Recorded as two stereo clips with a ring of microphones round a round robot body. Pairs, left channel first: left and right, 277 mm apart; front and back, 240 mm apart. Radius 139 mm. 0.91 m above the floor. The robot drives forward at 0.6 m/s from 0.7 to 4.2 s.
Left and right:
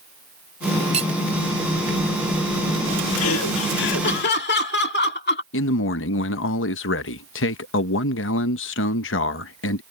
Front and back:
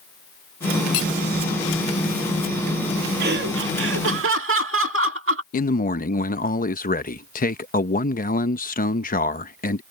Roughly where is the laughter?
Behind left.